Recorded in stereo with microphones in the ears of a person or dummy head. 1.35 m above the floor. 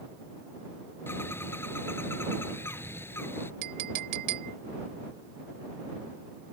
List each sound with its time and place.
1.1 s a bird: 15° left (ahead or behind)
3.6 s a clink: 80° right